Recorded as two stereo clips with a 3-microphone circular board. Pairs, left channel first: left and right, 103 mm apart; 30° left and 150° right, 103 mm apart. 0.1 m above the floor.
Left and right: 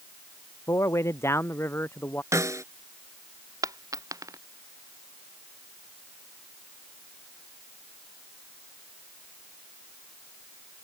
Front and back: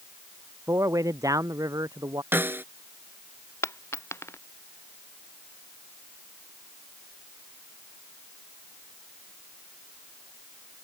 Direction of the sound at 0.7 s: 150° left.